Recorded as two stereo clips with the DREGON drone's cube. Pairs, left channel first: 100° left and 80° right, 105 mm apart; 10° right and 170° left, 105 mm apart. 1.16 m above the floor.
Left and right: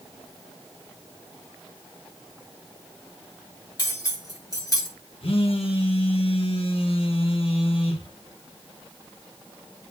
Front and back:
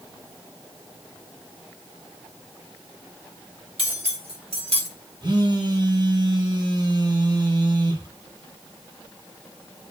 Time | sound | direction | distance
3.8 | cutlery clinking | 155° left | 1.6 m
5.2 | a phone buzzing | 125° left | 1.1 m